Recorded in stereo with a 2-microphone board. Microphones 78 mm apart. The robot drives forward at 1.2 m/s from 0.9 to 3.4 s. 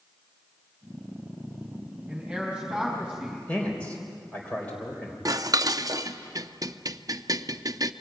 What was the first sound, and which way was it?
A man speaking, 5° right (ahead or behind).